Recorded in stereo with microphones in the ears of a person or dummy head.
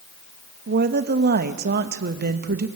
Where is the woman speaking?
50° right (ahead or behind), 1.6 m.